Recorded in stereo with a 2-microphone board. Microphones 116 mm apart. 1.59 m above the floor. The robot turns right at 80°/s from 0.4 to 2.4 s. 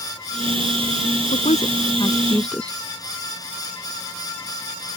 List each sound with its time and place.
1.3 s a woman speaking: 85° left; by 2.8 s 10° left (ahead or behind)